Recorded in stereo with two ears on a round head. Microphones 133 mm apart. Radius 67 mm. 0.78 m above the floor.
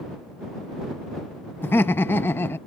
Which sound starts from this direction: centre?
Laughter, at 1.6 s.